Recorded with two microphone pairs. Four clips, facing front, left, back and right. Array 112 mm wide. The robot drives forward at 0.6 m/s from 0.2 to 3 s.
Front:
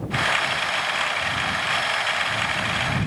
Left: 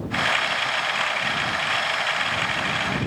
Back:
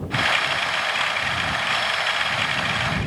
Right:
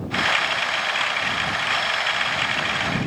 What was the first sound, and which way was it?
Only background noise.